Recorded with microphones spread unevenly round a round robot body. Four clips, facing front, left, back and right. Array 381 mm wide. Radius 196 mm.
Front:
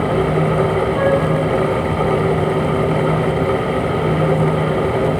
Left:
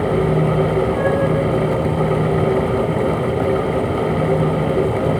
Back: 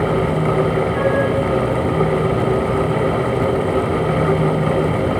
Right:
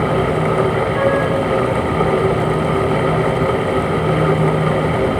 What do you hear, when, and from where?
0.9 s a flute: 50° right, 9 m